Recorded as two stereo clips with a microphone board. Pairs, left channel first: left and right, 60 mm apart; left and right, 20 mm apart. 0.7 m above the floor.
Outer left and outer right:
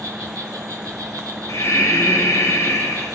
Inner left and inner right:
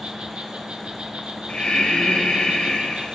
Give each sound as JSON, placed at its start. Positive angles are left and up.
{"t": 0.0, "sound": "an insect", "side_deg": -75, "distance_m": 1.6}
{"t": 1.5, "sound": "breathing", "side_deg": 80, "distance_m": 2.5}